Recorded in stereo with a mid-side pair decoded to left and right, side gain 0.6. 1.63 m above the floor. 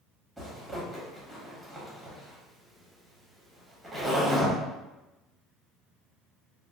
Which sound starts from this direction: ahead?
A zipper, at 0.4 s.